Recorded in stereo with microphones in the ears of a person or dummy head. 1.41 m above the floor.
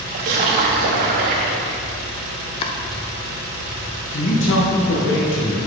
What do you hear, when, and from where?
0.1 s a splash: 30° right (ahead or behind), 0.9 m
2.6 s chopping: 30° left (ahead or behind), 0.7 m
4.1 s a man speaking: 65° left (ahead or behind), 1.5 m